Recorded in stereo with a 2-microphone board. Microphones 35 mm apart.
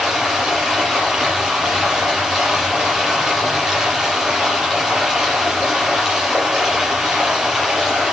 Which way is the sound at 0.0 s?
15° right (ahead or behind).